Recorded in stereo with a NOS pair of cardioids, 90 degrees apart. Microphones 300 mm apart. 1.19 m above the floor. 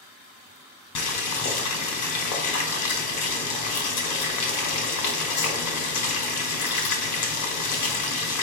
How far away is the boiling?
About 1.2 m.